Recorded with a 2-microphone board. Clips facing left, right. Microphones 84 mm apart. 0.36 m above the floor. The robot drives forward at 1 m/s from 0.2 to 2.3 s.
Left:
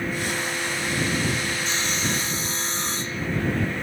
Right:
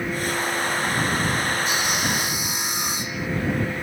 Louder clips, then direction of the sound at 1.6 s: Right 3 dB; 10° right (ahead or behind).